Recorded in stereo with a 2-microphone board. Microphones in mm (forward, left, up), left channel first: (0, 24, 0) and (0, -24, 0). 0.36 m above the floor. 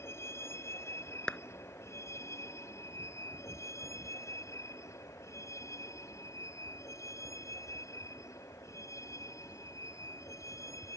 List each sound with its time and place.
0.0 s a vehicle: 60° left (ahead or behind); by 11.0 s 90° left
1.3 s a clap: 15° left (ahead or behind)